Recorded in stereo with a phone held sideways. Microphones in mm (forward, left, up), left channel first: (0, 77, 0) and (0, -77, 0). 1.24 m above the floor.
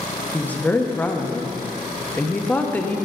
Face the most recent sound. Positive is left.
turn(degrees=10)  # may be behind; listen again after turning